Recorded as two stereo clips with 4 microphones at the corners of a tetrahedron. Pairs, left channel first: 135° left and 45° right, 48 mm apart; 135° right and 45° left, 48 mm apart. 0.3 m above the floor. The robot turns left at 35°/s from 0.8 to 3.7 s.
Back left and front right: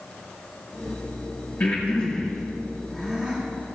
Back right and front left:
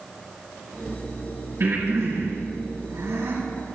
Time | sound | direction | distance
1.6 | breathing | 80° left | 7.5 m